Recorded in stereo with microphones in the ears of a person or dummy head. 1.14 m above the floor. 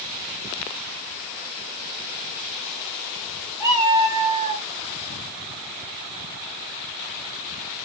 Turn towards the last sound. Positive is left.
turn(degrees=-45)  # may be behind; listen again after turning